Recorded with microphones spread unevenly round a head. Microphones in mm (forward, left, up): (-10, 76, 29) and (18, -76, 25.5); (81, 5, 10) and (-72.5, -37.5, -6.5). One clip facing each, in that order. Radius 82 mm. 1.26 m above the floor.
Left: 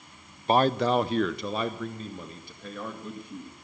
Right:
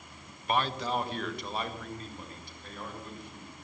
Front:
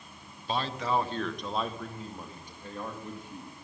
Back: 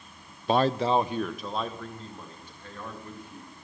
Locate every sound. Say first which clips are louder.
0.5 s a man speaking: left 8 dB, back 7 dB; 160° left, 0.5 m; by 3.5 s 90° left, 2.5 m